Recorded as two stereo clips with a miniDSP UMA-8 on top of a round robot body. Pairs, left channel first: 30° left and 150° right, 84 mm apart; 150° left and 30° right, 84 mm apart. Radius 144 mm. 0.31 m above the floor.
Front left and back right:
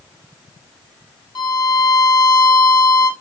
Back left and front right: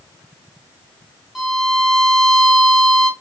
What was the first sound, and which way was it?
A violin, 60° left.